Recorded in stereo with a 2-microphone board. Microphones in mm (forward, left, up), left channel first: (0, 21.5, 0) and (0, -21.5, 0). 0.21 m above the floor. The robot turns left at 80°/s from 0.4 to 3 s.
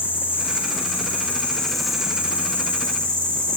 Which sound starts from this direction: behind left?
An insect, at 0.0 s.